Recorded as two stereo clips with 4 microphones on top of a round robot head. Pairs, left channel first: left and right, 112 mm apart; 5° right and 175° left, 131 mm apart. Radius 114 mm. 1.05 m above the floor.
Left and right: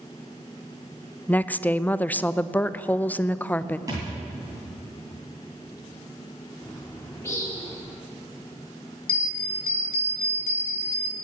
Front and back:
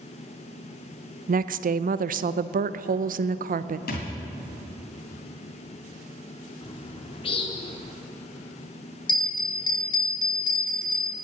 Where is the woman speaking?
165° left, 0.5 m.